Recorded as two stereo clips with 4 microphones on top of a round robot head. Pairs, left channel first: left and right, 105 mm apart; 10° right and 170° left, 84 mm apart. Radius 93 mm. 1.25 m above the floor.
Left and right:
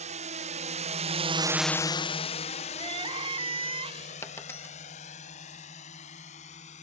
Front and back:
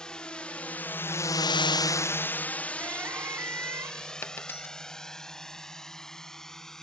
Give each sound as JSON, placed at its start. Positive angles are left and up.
{"t": 0.0, "sound": "a drone", "azimuth_deg": -90}
{"t": 2.8, "sound": "crying", "azimuth_deg": -125}
{"t": 4.2, "sound": "a dropped coin", "azimuth_deg": 30}